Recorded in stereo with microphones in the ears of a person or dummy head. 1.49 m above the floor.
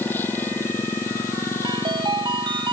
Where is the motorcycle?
10° left (ahead or behind); by 2.7 s 20° left (ahead or behind).